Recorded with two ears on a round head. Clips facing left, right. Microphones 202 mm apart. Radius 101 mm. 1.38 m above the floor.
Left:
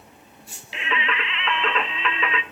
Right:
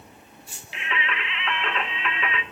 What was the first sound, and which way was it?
Singing, 65° left (ahead or behind).